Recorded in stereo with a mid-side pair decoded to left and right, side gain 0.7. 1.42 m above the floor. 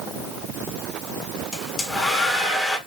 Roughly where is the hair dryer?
Ahead.